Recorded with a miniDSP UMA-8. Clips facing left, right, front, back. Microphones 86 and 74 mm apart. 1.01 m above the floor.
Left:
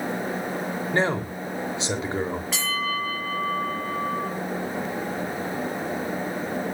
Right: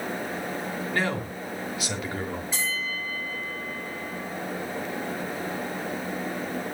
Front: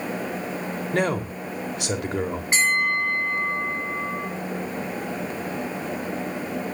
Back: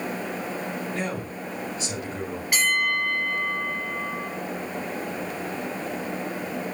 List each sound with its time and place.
0.9 s a man speaking: 25° left, 2.5 m
2.5 s a bell: 60° left, 7.5 m